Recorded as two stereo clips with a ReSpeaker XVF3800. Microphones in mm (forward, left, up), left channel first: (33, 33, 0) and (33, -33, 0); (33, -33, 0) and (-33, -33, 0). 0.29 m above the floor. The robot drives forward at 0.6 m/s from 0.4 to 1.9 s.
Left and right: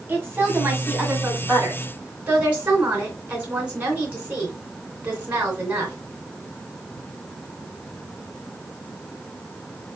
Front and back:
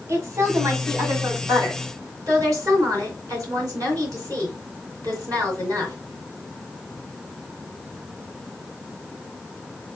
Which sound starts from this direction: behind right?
A woman speaking, at 0.1 s.